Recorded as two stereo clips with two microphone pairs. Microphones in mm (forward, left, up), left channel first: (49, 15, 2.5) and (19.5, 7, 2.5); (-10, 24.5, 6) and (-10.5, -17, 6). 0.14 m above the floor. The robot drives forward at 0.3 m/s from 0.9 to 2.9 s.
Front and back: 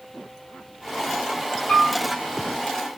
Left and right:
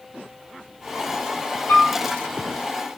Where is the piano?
65° left, 1.3 m; by 2.0 s 70° left, 1.3 m.